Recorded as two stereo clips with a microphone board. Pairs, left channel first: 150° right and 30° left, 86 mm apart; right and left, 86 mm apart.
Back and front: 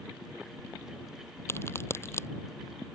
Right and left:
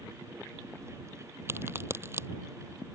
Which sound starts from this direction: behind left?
A crack, at 1.5 s.